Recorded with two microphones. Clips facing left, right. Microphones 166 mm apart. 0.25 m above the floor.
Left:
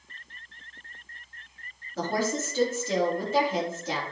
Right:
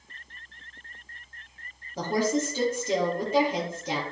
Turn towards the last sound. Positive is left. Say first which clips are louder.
# right 3 dB
turn(degrees=-15)  # may be behind; listen again after turning